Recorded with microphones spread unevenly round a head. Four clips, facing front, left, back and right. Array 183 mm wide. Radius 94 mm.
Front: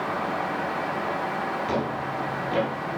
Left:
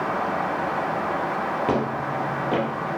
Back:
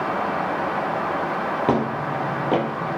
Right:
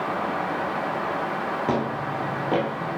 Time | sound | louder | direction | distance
1.7 | footsteps | left 1 dB, back 5 dB | 170° right | 3 m